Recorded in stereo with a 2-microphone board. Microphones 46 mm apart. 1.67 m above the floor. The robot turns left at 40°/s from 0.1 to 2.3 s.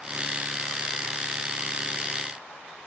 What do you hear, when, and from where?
Only background noise.